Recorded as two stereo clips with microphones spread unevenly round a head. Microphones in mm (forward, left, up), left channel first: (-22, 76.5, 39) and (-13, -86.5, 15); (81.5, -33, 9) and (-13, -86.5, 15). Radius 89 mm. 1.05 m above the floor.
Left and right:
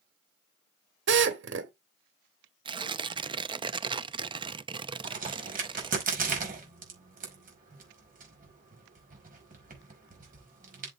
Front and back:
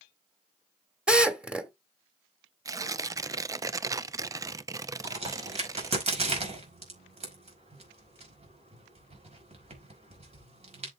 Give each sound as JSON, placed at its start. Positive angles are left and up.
{"t": 1.1, "sound": "a drill", "azimuth_deg": -70, "distance_m": 2.0}
{"t": 2.6, "sound": "tearing paper", "azimuth_deg": -105, "distance_m": 0.6}
{"t": 5.0, "sound": "a crack", "azimuth_deg": -125, "distance_m": 5.0}